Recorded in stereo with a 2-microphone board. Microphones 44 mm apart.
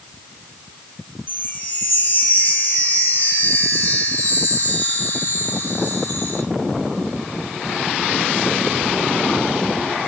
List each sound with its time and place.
1.3 s a chime: 55° left (ahead or behind), 2 m